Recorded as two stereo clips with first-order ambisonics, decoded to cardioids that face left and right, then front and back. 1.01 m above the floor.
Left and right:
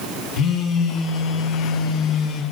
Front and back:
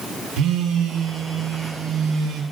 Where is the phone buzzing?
135° left, 0.8 m.